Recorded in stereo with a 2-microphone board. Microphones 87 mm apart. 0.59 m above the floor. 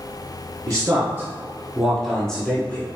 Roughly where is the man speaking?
Right.